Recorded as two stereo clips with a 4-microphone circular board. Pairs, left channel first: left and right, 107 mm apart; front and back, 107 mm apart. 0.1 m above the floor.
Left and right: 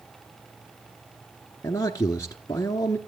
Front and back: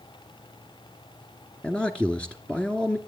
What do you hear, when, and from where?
1.6 s a man speaking: 70° left, 1.2 m